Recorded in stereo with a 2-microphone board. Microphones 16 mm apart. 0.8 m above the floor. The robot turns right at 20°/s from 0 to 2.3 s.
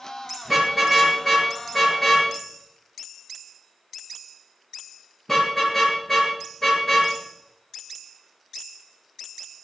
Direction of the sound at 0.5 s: 20° right (ahead or behind).